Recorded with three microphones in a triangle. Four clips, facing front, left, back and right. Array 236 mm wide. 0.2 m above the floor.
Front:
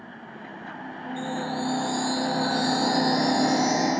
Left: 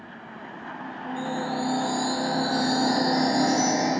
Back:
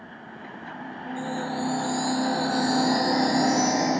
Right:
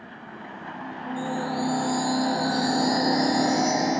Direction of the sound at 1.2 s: 115° right.